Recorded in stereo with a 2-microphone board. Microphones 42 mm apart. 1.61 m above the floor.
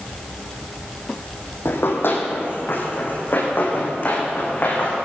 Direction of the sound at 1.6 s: 60° left (ahead or behind).